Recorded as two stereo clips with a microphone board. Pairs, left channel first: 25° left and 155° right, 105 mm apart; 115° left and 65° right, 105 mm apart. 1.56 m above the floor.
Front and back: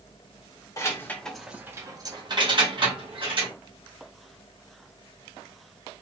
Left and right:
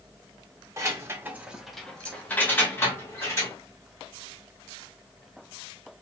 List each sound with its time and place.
0.8 s keys jangling: 20° right, 0.7 m; by 3.5 s 175° left, 1.6 m